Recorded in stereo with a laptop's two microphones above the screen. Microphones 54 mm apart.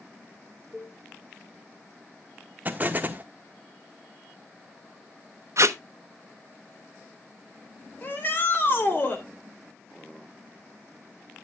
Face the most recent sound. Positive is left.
turn(degrees=40)  # may be behind; listen again after turning